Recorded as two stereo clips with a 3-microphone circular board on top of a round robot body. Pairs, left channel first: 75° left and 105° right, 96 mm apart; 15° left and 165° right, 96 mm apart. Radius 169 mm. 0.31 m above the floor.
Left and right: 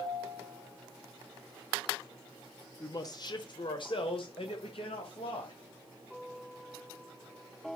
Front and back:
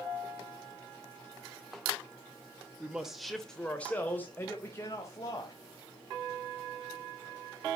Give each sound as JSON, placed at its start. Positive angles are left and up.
{"t": 2.8, "sound": "a man speaking", "azimuth_deg": 120, "distance_m": 1.7}